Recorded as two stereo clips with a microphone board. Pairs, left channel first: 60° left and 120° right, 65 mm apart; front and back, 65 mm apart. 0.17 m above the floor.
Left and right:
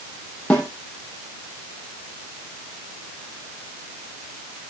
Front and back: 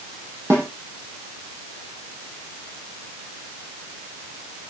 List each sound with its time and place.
0.5 s a snare drum: 125° left, 5.5 m